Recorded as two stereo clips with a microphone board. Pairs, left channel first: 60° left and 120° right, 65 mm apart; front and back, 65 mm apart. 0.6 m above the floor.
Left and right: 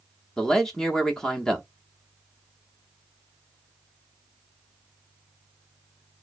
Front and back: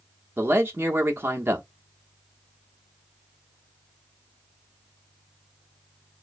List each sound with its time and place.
0.4 s a man speaking: 140° left, 0.9 m